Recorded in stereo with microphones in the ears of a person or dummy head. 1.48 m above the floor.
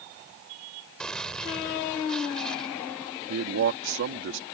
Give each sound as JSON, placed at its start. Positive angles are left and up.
{"t": 1.0, "sound": "a gunshot", "side_deg": 0}
{"t": 3.3, "sound": "a man speaking", "side_deg": -70}